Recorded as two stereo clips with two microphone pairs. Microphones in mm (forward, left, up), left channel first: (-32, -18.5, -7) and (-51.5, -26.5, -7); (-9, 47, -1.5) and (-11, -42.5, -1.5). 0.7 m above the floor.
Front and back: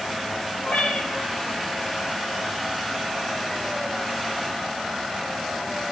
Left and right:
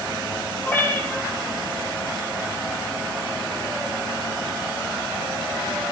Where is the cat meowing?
20° left, 6.5 m.